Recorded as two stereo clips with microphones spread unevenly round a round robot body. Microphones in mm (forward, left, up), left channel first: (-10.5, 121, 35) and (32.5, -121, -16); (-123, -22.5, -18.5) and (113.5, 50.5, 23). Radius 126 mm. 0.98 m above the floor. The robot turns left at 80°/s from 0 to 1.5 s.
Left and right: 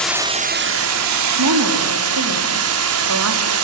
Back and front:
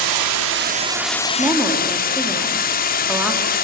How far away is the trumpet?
No trumpet in this recording.